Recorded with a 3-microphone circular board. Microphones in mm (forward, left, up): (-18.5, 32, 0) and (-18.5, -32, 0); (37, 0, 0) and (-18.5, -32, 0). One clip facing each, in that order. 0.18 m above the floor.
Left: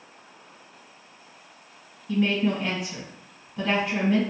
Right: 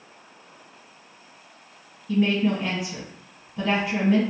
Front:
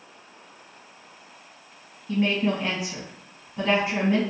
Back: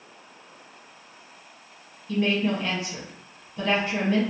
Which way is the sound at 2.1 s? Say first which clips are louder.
Right 2 dB, even; 5° right.